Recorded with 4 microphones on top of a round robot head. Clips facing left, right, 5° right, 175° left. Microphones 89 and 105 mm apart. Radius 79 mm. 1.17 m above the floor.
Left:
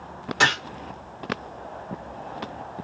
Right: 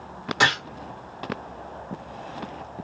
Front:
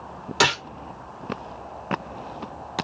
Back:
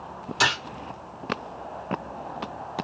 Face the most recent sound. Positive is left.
turn(degrees=-5)